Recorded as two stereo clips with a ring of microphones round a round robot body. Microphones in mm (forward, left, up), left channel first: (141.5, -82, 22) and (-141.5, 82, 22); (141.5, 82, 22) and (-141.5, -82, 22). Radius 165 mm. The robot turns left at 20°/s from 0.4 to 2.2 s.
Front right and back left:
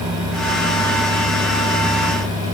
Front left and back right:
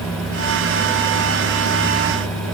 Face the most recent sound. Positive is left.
No sound to turn to.